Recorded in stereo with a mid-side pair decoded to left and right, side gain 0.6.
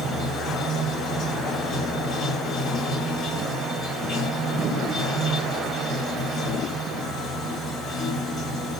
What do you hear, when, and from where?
0.0 s running water: 35° left, 1.6 m